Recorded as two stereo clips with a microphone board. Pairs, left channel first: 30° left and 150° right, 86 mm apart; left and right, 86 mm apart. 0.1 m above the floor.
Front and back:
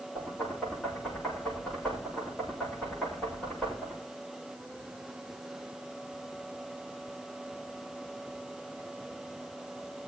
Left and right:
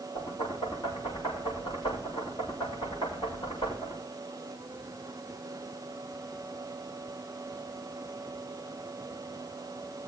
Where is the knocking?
105° left, 7.5 m.